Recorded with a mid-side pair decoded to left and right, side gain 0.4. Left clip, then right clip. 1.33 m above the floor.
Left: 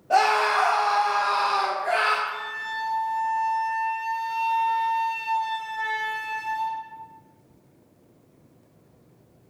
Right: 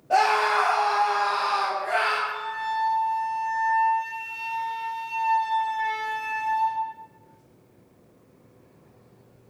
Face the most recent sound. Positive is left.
turn(degrees=65)